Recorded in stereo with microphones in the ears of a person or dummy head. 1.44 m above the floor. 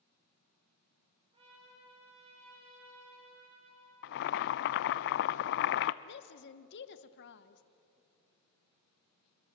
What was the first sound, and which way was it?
A trumpet, 25° right (ahead or behind).